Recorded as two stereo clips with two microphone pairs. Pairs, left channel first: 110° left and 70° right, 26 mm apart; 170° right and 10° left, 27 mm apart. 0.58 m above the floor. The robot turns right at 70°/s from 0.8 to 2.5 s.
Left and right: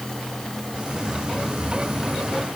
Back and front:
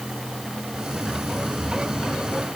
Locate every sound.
Only background noise.